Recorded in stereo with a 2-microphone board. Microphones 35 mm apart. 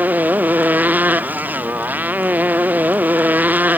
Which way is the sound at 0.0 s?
55° right (ahead or behind).